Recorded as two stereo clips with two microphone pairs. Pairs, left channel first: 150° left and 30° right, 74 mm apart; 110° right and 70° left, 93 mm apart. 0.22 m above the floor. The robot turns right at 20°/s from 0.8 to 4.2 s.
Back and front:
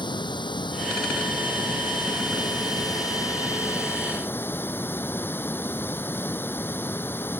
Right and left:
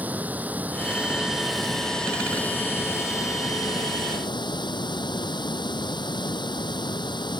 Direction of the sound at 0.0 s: 145° left.